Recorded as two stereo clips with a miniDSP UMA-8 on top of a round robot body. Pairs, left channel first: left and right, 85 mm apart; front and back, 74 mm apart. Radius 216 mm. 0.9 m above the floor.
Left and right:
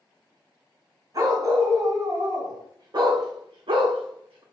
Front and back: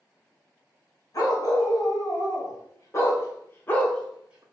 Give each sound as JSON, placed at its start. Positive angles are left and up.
{"t": 1.1, "sound": "a dog barking", "azimuth_deg": -45, "distance_m": 3.0}